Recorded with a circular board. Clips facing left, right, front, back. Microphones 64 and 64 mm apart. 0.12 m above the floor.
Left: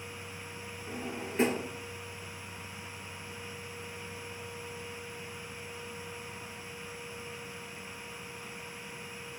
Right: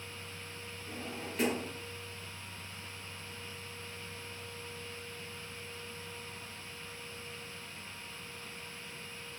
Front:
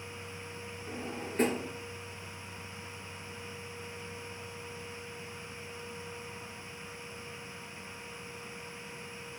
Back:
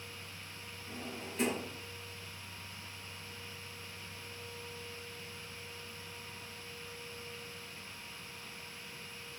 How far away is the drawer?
About 0.7 m.